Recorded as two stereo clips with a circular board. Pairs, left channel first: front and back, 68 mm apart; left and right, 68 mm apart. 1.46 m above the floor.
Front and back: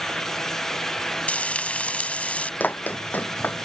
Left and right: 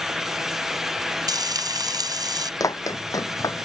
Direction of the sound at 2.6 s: 65° left.